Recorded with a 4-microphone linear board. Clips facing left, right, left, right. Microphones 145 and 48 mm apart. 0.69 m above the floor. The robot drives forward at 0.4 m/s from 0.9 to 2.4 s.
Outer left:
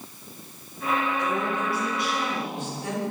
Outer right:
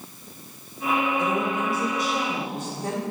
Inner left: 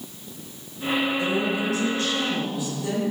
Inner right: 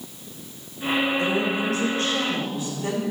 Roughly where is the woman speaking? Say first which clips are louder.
Outer right 2 dB, inner right 1 dB; right.